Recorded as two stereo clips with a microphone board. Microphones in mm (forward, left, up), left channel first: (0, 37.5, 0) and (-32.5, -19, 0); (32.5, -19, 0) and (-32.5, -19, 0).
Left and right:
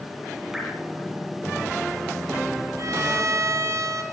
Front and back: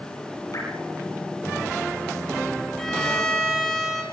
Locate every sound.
0.5 s dripping: 35° right, 6.5 m
2.8 s a violin: 85° right, 5 m